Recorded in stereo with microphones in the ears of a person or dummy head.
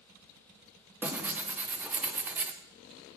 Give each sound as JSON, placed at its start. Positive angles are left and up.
{"t": 1.0, "sound": "tearing paper", "side_deg": -10, "distance_m": 0.7}